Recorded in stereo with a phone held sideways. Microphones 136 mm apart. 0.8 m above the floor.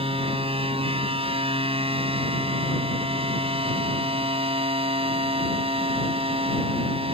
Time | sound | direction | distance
0.0 | a machine running | 45° right (ahead or behind) | ?